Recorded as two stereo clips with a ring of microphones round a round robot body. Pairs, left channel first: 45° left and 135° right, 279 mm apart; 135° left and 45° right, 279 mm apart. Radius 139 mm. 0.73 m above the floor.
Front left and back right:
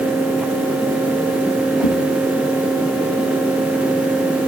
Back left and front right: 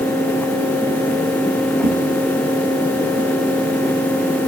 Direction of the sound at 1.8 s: 15° left.